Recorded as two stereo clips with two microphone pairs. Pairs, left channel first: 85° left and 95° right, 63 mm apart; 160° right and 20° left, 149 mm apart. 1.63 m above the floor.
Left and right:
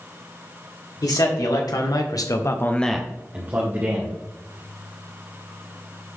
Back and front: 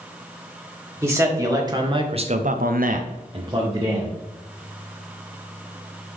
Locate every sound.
1.0 s a man speaking: 95° left, 2.5 m; by 4.2 s 50° right, 2.0 m